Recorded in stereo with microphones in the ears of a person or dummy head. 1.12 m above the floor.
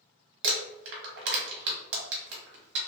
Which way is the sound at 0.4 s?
65° right (ahead or behind).